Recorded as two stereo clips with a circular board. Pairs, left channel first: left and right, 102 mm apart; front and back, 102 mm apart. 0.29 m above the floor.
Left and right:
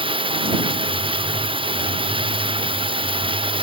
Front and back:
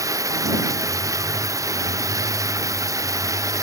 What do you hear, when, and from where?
0.0 s running water: 125° right